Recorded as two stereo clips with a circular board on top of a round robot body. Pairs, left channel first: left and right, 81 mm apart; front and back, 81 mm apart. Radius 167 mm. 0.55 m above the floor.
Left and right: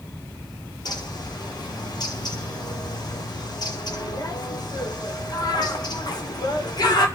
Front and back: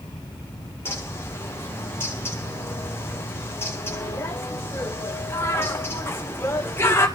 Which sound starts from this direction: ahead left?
A bird, at 0.8 s.